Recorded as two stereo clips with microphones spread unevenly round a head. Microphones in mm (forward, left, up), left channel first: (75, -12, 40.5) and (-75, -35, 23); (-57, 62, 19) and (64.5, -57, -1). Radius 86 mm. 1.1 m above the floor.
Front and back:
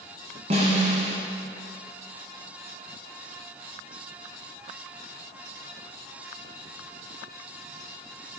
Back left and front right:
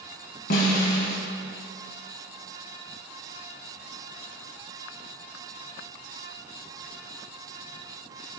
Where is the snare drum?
135° left, 1.6 m.